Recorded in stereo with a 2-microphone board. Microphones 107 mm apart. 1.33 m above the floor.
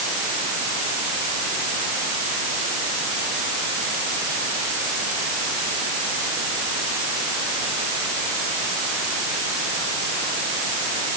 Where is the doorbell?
I don't hear a doorbell.